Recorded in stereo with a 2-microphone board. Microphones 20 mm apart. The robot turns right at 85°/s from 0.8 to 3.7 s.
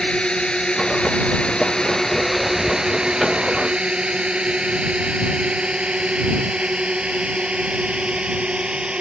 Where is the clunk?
No clunk in this recording.